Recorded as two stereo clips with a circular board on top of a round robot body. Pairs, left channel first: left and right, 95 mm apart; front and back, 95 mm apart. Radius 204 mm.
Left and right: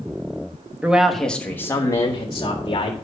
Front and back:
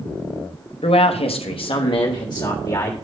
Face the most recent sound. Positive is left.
turn(degrees=60)